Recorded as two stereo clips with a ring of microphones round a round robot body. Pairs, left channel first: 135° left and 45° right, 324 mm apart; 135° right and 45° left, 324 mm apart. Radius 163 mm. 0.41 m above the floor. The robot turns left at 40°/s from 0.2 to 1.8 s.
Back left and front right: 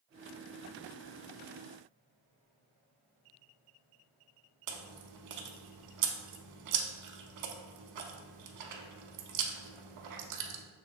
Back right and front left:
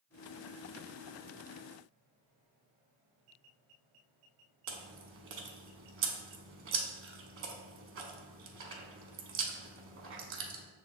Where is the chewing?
5° right, 0.6 m.